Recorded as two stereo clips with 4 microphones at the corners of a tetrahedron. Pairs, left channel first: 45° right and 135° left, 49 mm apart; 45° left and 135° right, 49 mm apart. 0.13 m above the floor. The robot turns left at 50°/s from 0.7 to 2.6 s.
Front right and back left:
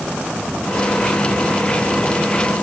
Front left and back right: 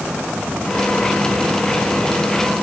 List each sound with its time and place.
Only background noise.